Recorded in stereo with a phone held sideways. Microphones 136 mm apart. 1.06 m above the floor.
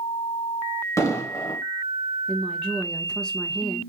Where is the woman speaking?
5° left (ahead or behind), 0.7 m.